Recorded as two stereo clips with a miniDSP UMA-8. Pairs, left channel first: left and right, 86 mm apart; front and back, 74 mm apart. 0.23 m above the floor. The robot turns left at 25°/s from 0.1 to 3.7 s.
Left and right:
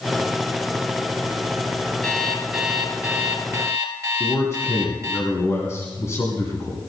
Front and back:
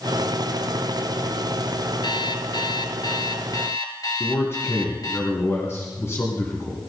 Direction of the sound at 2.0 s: 5° left.